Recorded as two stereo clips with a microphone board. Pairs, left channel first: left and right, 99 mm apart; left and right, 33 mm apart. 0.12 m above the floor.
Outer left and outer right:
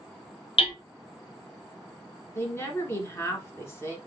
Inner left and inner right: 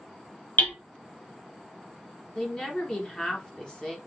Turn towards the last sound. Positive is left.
turn(degrees=25)  # may be behind; listen again after turning